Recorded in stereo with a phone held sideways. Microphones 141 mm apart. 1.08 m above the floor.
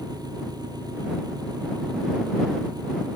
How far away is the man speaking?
No man speaking in this recording.